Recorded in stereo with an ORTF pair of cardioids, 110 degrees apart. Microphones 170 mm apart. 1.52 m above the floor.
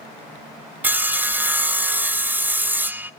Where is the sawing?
10° right, 0.7 m.